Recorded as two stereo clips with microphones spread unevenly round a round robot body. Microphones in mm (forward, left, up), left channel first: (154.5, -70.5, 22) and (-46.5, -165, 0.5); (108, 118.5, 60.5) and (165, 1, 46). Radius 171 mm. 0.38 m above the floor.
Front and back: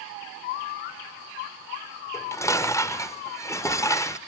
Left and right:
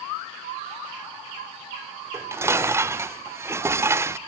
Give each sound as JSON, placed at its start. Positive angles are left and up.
{"t": 2.1, "sound": "dishes clattering", "azimuth_deg": -50, "distance_m": 0.6}